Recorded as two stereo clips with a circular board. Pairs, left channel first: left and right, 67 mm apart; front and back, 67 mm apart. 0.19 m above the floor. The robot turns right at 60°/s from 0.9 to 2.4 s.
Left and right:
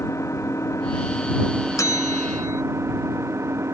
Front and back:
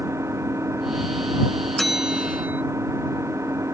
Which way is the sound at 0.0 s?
135° left.